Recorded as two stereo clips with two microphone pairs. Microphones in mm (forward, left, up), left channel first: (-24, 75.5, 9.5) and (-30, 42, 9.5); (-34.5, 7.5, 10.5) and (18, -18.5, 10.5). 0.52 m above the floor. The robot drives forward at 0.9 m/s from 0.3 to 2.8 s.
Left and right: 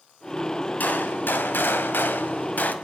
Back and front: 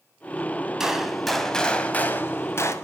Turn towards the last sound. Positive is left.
turn(degrees=115)